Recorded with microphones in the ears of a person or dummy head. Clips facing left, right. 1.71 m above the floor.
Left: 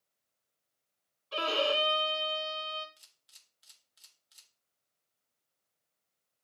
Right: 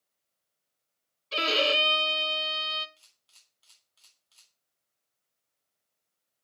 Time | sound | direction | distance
1.3 | a violin | 35° right (ahead or behind) | 0.6 m
3.0 | a camera shutter | 10° left (ahead or behind) | 2.0 m